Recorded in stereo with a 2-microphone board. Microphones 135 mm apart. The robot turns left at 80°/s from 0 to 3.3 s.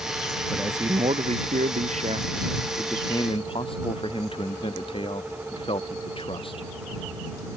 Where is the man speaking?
Straight ahead; by 6.7 s 135° left.